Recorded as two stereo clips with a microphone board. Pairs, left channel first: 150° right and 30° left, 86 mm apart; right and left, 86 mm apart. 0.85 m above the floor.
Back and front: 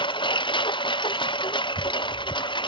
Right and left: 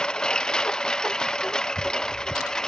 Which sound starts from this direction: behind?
A lawn mower, at 0.0 s.